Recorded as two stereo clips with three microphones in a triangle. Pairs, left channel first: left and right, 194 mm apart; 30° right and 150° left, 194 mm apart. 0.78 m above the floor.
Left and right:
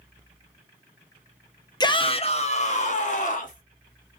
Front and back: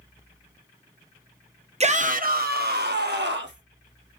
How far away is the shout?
About 0.5 m.